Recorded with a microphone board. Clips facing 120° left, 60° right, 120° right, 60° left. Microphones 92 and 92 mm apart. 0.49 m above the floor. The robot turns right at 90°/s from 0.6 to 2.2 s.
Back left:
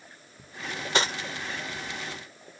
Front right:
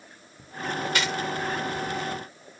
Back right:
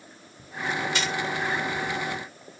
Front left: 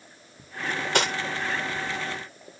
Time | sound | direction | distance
0.6 | cutlery clinking | 35° left | ?